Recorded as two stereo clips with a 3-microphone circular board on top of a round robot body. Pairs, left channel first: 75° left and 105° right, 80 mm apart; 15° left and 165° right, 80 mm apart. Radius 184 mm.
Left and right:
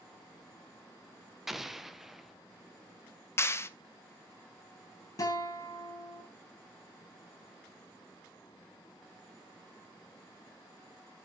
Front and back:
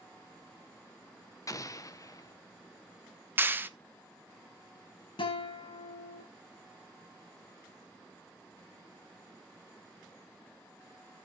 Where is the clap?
130° left, 1.1 m.